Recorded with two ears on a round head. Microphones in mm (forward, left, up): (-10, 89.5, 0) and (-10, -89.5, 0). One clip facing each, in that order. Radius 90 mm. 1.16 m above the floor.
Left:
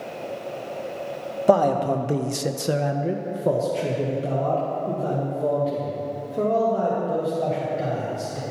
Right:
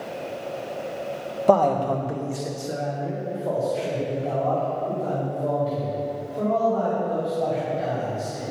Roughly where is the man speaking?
Centre.